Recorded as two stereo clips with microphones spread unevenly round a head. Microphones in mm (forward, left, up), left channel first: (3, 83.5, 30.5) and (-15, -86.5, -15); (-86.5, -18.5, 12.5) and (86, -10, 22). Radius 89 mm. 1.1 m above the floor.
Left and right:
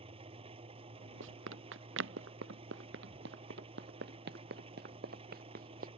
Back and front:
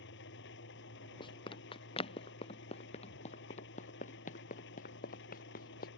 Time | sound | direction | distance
0.0 | an engine running | 155° right | ?
1.2 | running footsteps | 115° right | ?